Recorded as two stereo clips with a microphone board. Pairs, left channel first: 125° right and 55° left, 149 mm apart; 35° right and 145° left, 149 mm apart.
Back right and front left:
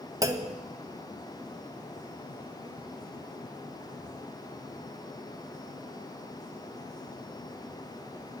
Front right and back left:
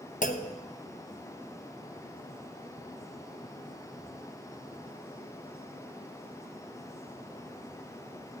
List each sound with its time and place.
0.2 s a clunk: 10° right, 1.3 m